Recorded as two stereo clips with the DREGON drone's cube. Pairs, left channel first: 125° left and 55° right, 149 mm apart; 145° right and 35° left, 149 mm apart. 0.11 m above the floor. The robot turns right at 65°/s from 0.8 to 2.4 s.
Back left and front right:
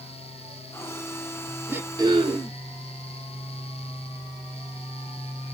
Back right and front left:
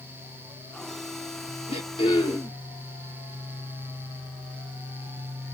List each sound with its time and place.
1.7 s throat clearing: 130° right, 1.1 m; by 2.6 s 80° right, 1.1 m